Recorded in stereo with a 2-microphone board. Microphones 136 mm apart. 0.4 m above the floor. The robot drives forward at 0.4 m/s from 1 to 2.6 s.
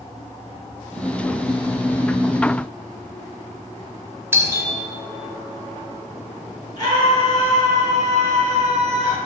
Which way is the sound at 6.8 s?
30° left (ahead or behind).